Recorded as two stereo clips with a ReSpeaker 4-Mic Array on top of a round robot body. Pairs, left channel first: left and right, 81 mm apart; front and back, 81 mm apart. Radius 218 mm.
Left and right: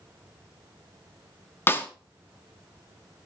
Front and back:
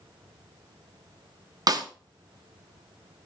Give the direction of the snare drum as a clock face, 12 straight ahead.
7 o'clock.